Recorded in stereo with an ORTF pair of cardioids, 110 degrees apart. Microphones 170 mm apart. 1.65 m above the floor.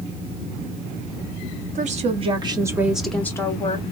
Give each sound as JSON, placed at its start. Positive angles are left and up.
{"t": 1.8, "sound": "a woman speaking", "azimuth_deg": -45, "distance_m": 1.1}